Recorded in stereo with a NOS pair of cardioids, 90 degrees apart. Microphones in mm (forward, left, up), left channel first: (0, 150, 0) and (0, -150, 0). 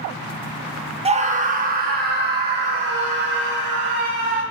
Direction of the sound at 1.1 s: 20° right.